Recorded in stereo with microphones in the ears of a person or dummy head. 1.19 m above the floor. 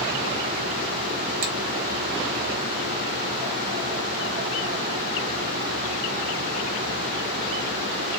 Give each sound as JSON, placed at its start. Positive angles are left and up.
{"t": 1.4, "sound": "a finger snap", "side_deg": -45, "distance_m": 1.2}